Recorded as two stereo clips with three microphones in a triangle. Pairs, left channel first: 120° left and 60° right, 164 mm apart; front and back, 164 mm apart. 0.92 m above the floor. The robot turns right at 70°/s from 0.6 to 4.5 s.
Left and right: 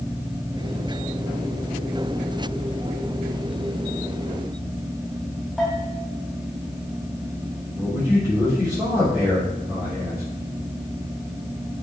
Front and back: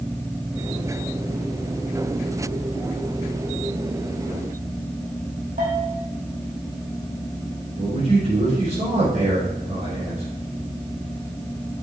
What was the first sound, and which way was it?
A bell, 150° right.